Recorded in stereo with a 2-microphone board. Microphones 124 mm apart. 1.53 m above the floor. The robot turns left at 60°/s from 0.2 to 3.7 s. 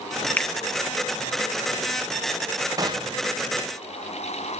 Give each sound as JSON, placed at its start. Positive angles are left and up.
{"t": 0.4, "sound": "a finger snap", "side_deg": 15, "distance_m": 0.8}
{"t": 2.8, "sound": "a gunshot", "side_deg": -30, "distance_m": 1.1}